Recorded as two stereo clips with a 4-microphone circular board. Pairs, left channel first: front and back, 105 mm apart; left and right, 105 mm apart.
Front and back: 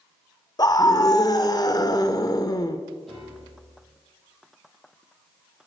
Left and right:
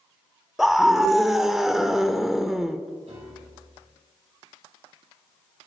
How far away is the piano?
About 6 m.